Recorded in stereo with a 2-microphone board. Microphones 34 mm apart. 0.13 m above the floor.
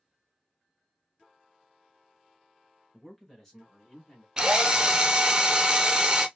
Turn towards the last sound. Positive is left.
turn(degrees=-25)  # may be behind; listen again after turning